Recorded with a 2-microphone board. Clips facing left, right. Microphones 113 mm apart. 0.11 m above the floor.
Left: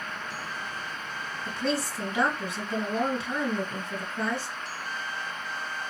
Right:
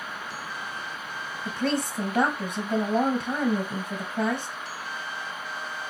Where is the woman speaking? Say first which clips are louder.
Right 2 dB; 50° right (ahead or behind), 2 m.